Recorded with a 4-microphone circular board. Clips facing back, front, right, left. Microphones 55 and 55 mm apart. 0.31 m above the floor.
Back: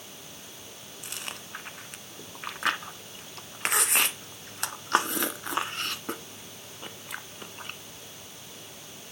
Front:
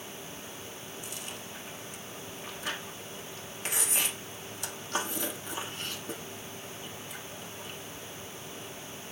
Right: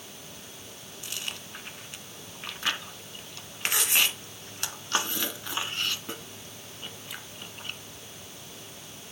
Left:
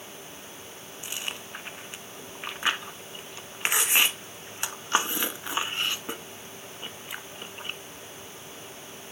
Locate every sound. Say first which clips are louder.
1.0 s chewing: back 1 dB, left 2 dB; 160° left, 0.6 m